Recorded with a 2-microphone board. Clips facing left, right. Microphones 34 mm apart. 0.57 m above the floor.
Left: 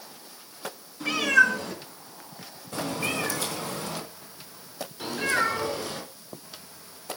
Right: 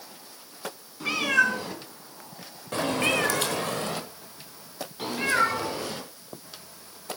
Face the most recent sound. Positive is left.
turn(degrees=-20)  # may be behind; listen again after turning